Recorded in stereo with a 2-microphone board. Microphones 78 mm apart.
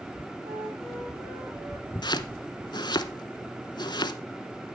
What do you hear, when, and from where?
0.4 s a flute: 60° right (ahead or behind), 6.5 m
2.0 s chopping: 75° left (ahead or behind), 0.7 m